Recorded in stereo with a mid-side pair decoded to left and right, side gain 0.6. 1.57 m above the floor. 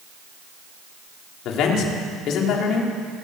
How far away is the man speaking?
About 4.5 m.